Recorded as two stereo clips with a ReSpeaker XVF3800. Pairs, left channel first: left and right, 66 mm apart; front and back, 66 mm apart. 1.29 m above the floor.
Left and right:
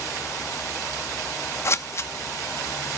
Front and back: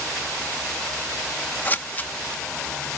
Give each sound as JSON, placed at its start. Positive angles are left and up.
{"t": 1.6, "sound": "scissors", "azimuth_deg": 55, "distance_m": 0.9}